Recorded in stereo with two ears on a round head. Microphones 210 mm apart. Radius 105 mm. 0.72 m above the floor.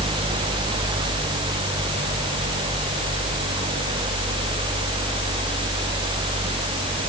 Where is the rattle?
I don't hear a rattle.